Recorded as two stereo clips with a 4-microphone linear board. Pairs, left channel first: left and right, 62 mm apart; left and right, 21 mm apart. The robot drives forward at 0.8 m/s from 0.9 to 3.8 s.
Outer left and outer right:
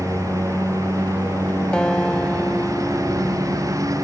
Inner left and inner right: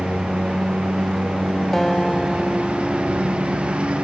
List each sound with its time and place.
0.0 s a lawn mower: 65° right (ahead or behind); by 4.0 s 70° right (ahead or behind)
1.7 s a guitar: 15° left (ahead or behind); by 3.9 s 10° left (ahead or behind)